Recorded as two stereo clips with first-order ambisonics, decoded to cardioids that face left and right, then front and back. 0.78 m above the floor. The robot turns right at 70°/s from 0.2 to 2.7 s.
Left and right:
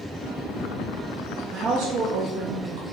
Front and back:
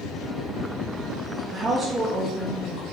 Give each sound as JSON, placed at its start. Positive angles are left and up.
{"t": 1.5, "sound": "a woman speaking", "azimuth_deg": -140, "distance_m": 0.5}